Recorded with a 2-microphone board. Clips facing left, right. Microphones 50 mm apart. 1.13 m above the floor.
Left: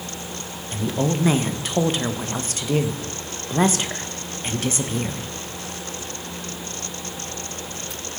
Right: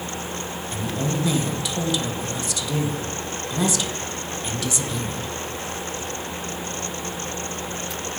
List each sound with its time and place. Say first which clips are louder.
0.7 s a woman speaking: left 4 dB; 40° left (ahead or behind), 1.1 m